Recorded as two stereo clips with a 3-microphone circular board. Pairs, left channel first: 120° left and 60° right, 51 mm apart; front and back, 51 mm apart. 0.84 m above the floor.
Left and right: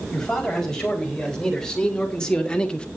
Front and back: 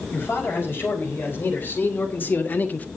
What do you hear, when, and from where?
0.1 s a man speaking: 45° left, 5 m; by 2.9 s 55° left, 1.2 m